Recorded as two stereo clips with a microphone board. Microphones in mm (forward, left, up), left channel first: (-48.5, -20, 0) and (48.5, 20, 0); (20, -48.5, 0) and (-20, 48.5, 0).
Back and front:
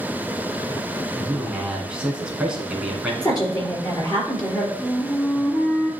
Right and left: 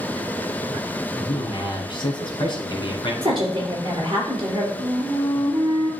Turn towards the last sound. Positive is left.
turn(degrees=135)